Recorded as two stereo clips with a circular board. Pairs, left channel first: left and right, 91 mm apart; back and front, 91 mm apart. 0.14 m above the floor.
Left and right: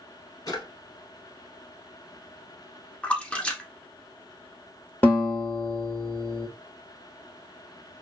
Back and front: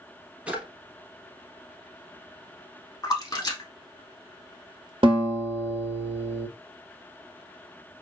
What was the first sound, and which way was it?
A drawer, 70° left.